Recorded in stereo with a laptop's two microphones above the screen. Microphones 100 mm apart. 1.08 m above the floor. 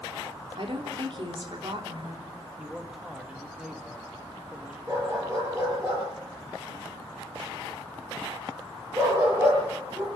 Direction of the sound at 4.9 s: 30° right (ahead or behind).